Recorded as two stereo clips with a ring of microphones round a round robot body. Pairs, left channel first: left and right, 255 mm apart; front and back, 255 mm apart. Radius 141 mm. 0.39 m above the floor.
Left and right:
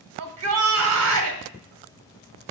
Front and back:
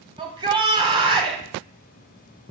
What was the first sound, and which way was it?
A shout, 110° right.